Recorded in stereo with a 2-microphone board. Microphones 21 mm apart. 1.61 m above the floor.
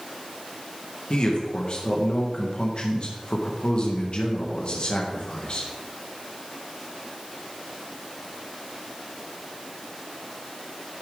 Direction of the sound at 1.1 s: 45° left (ahead or behind).